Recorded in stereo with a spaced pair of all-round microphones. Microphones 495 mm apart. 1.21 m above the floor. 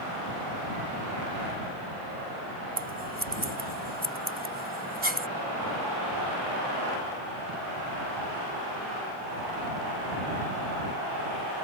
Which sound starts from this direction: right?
Scissors, at 2.8 s.